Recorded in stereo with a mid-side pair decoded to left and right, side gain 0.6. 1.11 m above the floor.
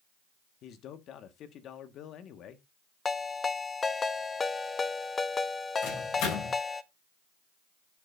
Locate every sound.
0.6 s a man speaking: 55° left, 1.9 m
3.0 s a ringtone: 25° left, 1.0 m
5.8 s a microwave: 65° left, 7.5 m